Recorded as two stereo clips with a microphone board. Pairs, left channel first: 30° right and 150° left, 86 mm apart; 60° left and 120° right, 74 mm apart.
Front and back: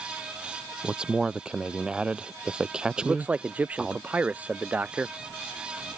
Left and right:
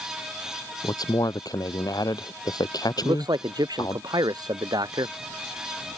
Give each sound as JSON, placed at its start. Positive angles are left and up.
{"t": 0.8, "sound": "a man speaking", "azimuth_deg": 70}
{"t": 3.0, "sound": "a man speaking", "azimuth_deg": -140}